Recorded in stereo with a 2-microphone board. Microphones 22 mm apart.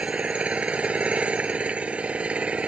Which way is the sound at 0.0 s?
75° right (ahead or behind).